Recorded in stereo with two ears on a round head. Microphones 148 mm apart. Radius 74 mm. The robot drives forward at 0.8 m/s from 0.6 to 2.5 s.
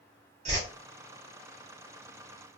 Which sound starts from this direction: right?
A whoosh, at 0.5 s.